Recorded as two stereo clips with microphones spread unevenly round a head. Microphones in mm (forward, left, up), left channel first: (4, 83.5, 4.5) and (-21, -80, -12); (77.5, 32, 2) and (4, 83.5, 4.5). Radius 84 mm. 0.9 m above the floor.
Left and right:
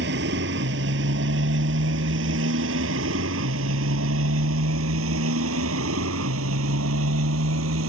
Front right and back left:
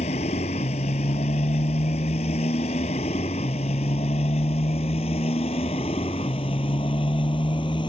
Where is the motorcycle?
70° right; by 7.9 s 100° right.